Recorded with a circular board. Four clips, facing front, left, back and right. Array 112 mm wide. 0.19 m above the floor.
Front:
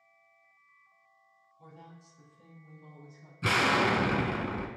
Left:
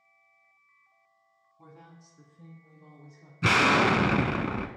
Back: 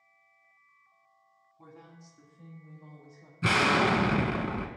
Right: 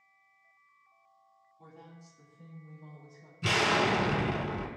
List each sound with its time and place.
1.6 s a woman speaking: 145° left, 1.4 m; by 3.3 s 115° left, 3.5 m
3.4 s an explosion: 100° left, 0.5 m